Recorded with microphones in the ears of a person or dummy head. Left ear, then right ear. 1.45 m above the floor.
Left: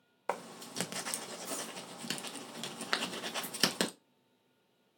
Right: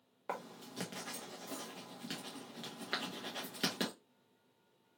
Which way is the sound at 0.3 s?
35° left (ahead or behind).